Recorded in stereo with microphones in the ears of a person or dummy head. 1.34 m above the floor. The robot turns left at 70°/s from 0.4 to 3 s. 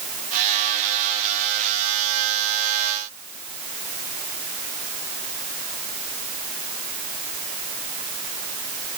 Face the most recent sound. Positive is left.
No sound to turn to.